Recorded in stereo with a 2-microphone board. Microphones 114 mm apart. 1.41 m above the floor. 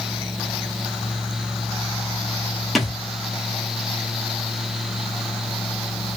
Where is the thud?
Centre (ahead or behind), 0.9 m.